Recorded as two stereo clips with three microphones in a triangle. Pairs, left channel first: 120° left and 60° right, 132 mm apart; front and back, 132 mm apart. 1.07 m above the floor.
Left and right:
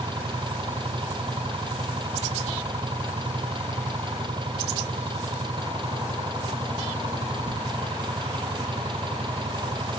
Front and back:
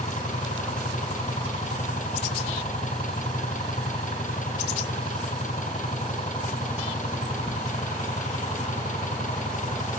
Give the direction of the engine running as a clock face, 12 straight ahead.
12 o'clock.